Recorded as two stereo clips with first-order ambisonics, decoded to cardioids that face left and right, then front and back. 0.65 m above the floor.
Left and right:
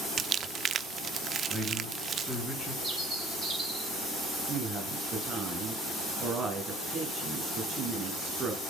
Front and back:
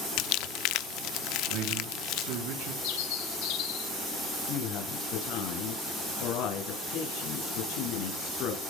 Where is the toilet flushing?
I don't hear a toilet flushing.